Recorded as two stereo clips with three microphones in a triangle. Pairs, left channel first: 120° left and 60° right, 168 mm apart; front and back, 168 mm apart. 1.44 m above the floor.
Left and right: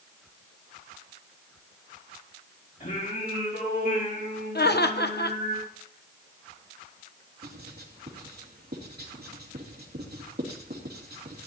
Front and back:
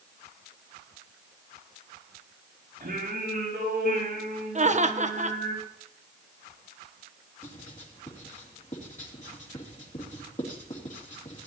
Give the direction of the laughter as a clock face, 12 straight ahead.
8 o'clock.